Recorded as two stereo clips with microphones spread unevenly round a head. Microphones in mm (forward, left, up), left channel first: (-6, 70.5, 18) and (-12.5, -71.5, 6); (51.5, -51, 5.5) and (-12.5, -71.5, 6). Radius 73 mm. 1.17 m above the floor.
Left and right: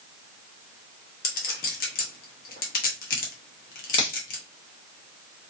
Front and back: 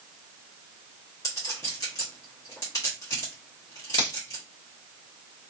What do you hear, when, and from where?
1.2 s a clink: 75° left, 0.8 m
4.0 s a finger snap: 25° left, 0.9 m